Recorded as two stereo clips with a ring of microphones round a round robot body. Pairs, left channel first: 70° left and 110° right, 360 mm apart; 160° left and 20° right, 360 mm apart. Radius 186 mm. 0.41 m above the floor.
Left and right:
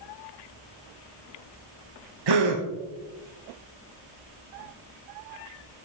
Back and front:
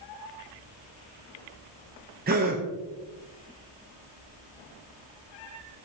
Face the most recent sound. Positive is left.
turn(degrees=-90)